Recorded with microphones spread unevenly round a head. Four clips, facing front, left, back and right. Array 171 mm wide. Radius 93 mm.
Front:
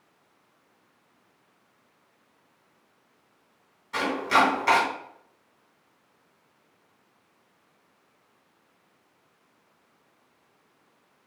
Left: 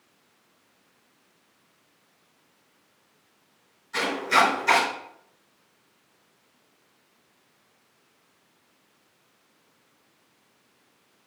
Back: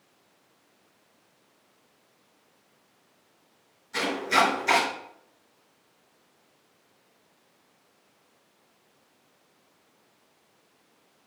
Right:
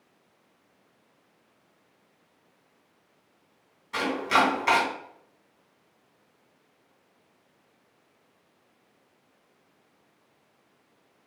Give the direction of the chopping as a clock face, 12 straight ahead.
12 o'clock.